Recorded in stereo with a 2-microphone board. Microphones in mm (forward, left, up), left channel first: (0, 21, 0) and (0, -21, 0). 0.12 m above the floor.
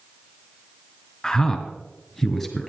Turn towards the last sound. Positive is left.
turn(degrees=5)  # may be behind; listen again after turning